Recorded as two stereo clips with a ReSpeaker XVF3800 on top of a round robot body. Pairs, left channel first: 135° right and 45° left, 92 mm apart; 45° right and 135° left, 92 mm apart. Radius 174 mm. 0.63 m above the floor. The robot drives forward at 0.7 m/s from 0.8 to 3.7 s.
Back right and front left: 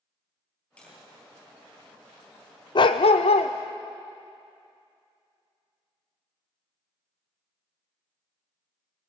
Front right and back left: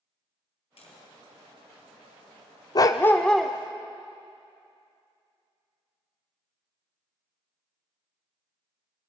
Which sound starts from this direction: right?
A dog barking, at 2.8 s.